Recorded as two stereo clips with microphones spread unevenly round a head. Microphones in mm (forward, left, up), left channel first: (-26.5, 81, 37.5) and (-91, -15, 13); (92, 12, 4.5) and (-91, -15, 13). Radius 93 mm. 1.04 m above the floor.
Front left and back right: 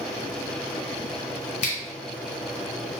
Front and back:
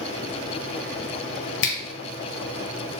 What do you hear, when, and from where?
1.6 s a finger snap: 10° left, 0.9 m